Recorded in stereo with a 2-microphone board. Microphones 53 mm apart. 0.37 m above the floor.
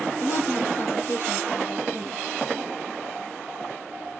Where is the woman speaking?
60° left (ahead or behind), 6 m.